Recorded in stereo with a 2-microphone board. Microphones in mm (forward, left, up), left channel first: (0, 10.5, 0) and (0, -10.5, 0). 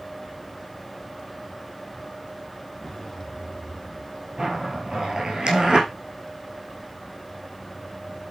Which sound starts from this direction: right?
A zipper, at 4.4 s.